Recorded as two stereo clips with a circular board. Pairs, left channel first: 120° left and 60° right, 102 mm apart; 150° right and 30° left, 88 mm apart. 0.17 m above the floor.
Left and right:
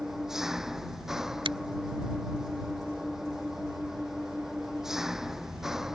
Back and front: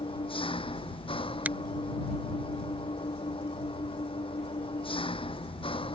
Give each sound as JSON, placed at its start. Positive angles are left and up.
{"t": 0.0, "sound": "an engine running", "azimuth_deg": -145}
{"t": 1.4, "sound": "a finger snap", "azimuth_deg": -40}